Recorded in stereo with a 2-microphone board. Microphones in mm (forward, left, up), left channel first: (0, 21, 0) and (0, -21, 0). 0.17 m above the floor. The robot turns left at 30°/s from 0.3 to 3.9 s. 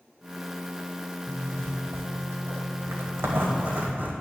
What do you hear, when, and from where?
1.3 s a zipper: 60° right, 1.6 m; by 4.1 s 135° right, 1.6 m